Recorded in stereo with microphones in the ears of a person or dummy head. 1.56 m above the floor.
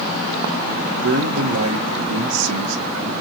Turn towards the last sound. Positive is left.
turn(degrees=-85)